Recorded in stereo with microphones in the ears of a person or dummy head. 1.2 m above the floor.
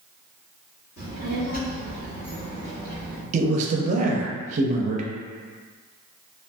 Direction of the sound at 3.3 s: 35° right (ahead or behind).